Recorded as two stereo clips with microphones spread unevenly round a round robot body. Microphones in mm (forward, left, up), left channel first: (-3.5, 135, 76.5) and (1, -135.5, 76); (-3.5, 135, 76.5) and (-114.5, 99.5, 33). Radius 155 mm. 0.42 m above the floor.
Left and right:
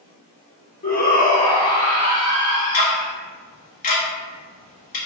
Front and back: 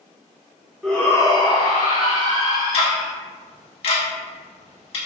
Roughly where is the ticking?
Ahead left.